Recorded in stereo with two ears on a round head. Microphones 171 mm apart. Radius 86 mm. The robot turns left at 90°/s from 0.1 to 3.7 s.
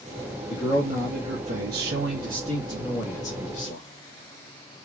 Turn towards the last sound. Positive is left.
turn(degrees=115)